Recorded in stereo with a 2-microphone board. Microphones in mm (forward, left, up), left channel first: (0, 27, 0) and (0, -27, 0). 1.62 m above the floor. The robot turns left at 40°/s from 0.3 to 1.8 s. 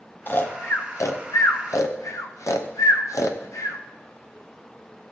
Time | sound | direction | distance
0.3 | snoring | 45° left (ahead or behind) | 0.8 m